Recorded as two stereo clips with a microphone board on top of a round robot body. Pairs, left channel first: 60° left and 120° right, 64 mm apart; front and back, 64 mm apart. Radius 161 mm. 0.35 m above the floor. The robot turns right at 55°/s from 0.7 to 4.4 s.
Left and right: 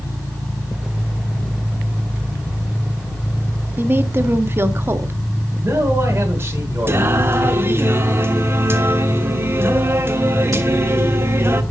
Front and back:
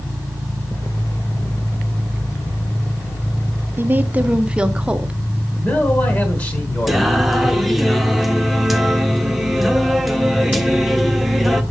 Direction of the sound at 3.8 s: 150° right.